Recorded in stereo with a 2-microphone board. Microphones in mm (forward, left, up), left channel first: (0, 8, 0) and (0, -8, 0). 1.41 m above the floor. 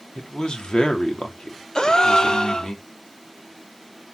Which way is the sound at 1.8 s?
55° left (ahead or behind).